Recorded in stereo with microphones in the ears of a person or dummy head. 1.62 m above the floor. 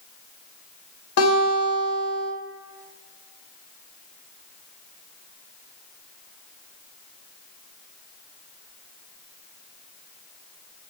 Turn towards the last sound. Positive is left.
turn(degrees=70)  # may be behind; listen again after turning